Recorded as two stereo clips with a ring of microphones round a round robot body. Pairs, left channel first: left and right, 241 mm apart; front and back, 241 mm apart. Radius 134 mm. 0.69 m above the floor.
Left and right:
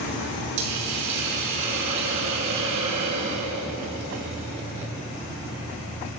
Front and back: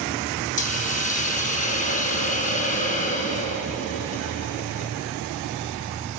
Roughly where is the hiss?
Ahead right.